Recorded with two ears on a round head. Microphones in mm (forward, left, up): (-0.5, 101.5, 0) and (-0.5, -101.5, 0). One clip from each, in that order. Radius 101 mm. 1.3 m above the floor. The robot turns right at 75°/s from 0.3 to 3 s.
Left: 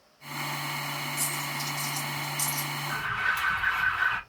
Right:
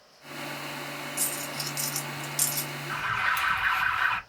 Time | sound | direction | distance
1.2 | a dropped coin | 5° right (ahead or behind) | 2 m
2.9 | an alarm | 15° right (ahead or behind) | 1.1 m